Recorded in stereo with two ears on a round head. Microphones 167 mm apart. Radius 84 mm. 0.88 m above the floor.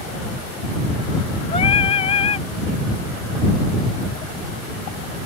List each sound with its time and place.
1.5 s singing: 35° left (ahead or behind)